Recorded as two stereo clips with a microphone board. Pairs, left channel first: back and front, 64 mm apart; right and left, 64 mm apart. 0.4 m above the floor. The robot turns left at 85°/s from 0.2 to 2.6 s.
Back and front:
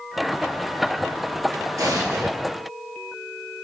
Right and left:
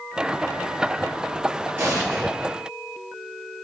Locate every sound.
1.8 s an explosion: 35° left, 6 m; by 2.3 s 10° right, 6 m